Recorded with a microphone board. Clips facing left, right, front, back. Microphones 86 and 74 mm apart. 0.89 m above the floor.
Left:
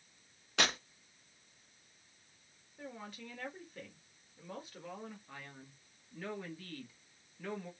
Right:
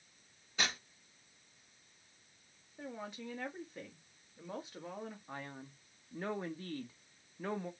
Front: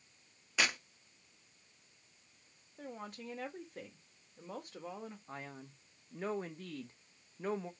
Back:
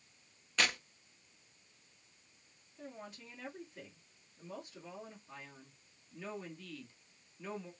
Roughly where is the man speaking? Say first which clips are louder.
Right 5 dB, front 5 dB; ahead right.